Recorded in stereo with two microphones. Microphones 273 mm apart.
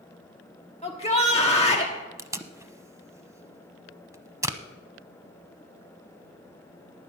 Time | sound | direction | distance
0.8 | a shout | 20° left (ahead or behind) | 1.3 m
2.2 | tape being pulled | 10° right (ahead or behind) | 0.7 m